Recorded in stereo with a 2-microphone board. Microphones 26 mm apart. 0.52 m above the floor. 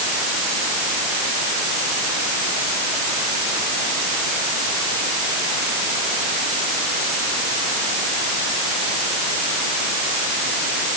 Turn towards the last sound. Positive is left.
No sound to turn to.